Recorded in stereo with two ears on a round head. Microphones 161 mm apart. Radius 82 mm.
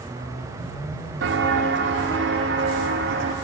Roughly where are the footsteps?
Right.